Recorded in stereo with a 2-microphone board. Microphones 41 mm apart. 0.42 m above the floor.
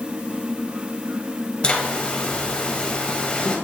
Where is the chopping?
No chopping in this recording.